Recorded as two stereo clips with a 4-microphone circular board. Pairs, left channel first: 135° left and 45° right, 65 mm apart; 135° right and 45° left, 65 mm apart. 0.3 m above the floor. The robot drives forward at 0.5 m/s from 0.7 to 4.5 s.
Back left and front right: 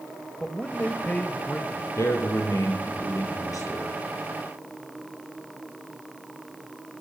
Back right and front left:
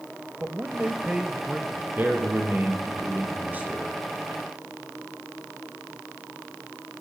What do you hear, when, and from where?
0.4 s a man speaking: 80° left, 1.2 m; by 1.9 s 125° left, 1.3 m
2.0 s a man speaking: 100° left, 6.5 m; by 4.0 s 110° left, 7 m